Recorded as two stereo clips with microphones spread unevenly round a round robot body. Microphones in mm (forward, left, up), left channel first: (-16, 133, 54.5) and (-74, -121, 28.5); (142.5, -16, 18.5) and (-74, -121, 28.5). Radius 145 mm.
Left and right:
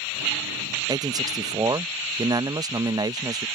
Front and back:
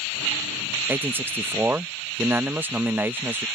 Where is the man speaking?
80° right.